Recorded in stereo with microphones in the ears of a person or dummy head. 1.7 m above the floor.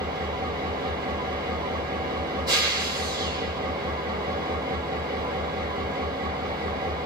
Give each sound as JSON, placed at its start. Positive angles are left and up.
{"t": 0.0, "sound": "an engine running", "side_deg": -25, "distance_m": 0.8}